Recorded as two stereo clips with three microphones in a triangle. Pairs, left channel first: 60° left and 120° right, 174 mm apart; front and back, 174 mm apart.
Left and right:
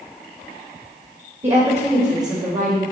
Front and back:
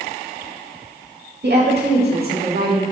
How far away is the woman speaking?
About 2.5 m.